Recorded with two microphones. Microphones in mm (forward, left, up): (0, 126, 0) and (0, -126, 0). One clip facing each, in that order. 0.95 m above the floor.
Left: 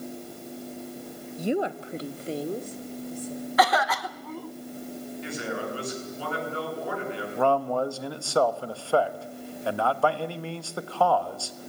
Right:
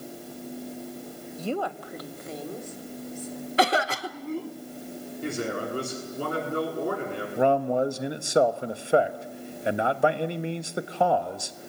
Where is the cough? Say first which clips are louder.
Right 1 dB; 30° right (ahead or behind), 0.9 m.